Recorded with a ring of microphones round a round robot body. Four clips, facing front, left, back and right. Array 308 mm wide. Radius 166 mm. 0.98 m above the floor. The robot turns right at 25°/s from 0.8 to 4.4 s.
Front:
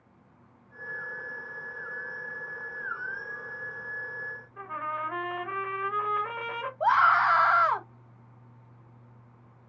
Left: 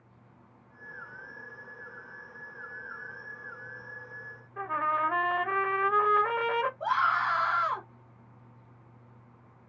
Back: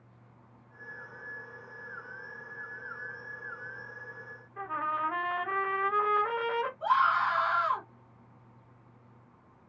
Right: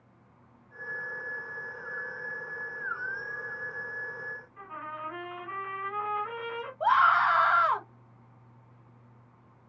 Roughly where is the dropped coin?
No dropped coin in this recording.